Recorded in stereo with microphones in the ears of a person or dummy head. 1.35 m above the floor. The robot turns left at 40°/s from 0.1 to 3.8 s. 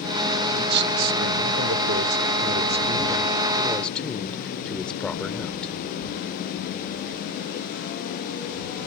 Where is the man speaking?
55° right; by 5.7 s 170° left.